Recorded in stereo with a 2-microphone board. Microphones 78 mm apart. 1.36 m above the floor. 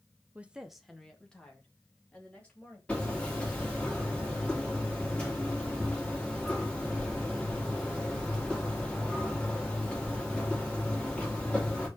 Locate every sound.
0.3 s a woman speaking: 20° right (ahead or behind), 0.8 m; by 2.8 s 20° left (ahead or behind), 3.5 m
2.9 s hammering: 15° left (ahead or behind), 3 m